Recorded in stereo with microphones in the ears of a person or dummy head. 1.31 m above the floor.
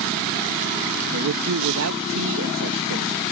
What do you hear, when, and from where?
1.1 s a man speaking: 75° right (ahead or behind)